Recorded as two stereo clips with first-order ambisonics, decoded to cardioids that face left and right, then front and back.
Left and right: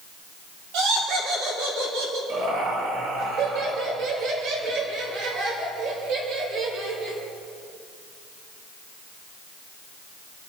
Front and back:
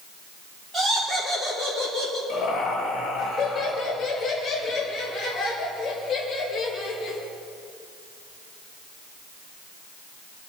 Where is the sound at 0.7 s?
105° right, 5.5 m; by 2.2 s 115° right, 5.5 m.